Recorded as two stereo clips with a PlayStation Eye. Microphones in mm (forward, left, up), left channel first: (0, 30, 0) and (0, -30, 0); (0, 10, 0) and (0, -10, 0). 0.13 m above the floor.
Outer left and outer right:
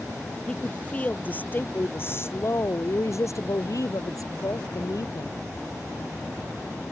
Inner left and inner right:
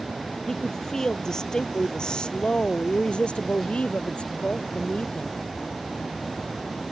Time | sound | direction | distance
0.5 | a woman speaking | 20° left (ahead or behind) | ?